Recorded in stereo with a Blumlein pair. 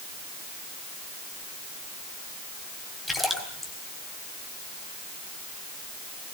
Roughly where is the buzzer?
I don't hear a buzzer.